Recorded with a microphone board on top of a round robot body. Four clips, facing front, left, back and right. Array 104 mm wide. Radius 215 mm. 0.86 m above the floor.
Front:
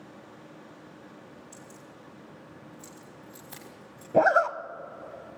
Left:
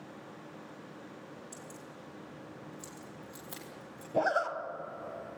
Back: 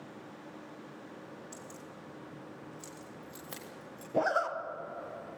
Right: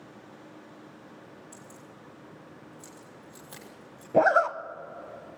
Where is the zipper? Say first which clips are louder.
Right 8 dB, front 8 dB; 55° right, 1.1 m.